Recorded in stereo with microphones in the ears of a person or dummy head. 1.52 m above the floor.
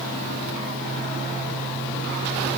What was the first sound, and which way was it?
Only background noise.